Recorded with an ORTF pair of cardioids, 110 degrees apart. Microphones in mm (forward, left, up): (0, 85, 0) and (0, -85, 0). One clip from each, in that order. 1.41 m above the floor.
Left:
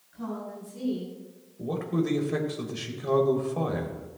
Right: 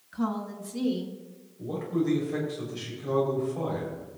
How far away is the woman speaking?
About 5 m.